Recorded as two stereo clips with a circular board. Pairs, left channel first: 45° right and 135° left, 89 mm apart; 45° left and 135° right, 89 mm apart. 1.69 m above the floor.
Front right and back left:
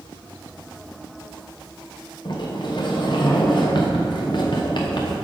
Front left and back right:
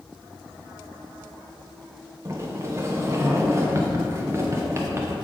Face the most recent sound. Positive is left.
turn(degrees=-75)